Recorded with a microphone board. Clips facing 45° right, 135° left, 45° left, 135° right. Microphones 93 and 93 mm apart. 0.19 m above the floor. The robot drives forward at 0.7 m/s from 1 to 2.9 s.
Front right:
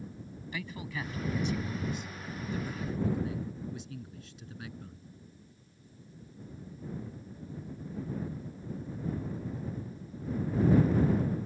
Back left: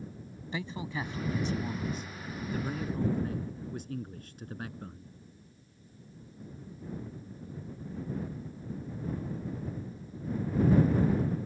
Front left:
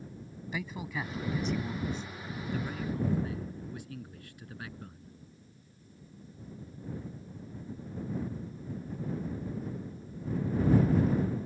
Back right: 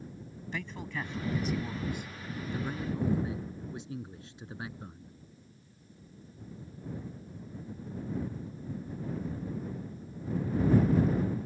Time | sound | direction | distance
0.5 | a man speaking | 120° left | ?